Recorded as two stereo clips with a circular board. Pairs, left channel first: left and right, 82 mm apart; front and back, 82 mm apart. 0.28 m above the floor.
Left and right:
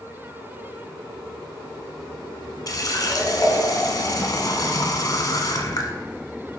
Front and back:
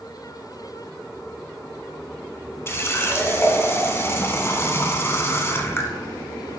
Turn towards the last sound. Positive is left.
turn(degrees=55)